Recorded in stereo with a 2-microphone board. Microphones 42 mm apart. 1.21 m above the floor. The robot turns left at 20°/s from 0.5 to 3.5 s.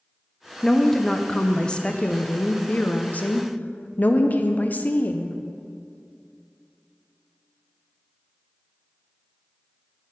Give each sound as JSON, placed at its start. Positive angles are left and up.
{"t": 0.6, "sound": "a woman speaking", "azimuth_deg": 170, "distance_m": 0.5}